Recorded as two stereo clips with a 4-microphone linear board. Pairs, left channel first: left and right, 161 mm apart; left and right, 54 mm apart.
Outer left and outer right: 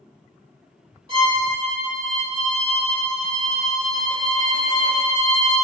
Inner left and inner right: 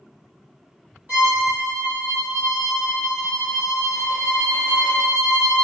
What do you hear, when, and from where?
1.1 s a violin: 35° right (ahead or behind), 1.2 m